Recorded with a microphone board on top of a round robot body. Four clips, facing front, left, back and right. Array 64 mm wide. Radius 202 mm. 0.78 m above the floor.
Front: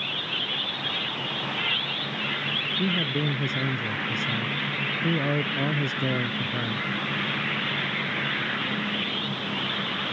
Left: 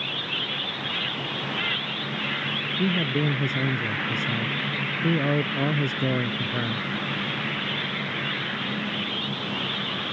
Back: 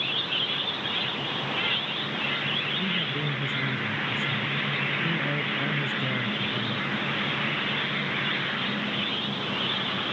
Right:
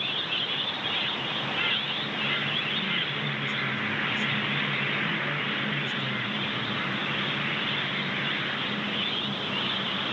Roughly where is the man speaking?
Ahead left.